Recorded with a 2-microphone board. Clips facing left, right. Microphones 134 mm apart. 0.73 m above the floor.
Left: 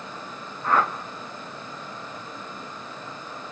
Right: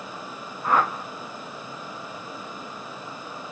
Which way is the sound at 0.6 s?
15° right (ahead or behind).